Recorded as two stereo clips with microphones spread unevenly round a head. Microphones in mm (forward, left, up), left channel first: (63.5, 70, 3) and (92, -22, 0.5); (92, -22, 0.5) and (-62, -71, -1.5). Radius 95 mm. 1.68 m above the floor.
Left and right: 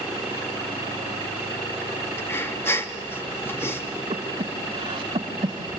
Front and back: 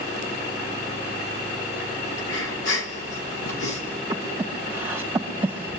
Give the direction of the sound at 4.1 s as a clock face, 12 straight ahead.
3 o'clock.